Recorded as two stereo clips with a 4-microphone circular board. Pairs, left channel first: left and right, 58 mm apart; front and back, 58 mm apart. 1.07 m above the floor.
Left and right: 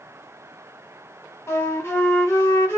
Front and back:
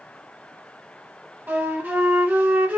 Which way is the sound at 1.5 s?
125° left.